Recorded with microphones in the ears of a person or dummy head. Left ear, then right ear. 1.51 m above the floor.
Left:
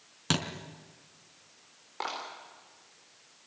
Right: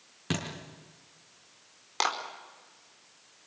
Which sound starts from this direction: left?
A thud, at 0.3 s.